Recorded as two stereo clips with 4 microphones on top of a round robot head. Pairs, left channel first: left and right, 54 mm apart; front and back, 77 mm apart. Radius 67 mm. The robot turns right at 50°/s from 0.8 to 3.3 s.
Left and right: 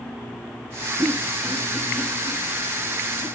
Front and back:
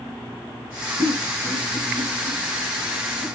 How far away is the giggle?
About 2.5 m.